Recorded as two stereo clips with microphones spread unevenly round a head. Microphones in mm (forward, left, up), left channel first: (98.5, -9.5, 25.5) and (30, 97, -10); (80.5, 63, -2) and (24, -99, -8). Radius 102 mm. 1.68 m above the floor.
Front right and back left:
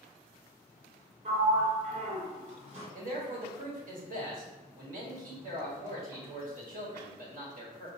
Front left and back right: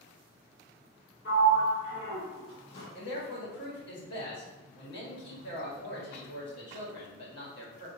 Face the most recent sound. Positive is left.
turn(degrees=115)